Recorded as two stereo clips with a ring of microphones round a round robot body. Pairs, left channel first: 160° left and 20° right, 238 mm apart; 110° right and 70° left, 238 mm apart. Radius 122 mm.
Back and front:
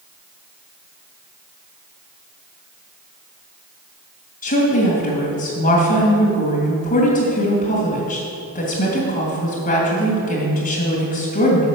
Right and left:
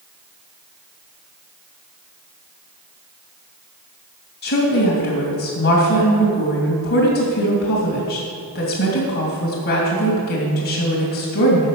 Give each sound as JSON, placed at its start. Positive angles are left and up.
{"t": 4.4, "sound": "a woman speaking", "azimuth_deg": -155, "distance_m": 2.5}